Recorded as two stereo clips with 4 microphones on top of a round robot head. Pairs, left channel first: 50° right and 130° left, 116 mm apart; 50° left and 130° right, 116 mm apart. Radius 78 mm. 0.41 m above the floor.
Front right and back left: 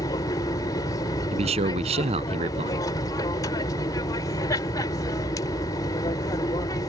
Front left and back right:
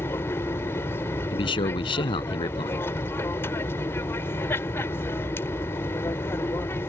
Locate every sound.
0.0 s an aircraft: 10° right
1.3 s a man speaking: 95° left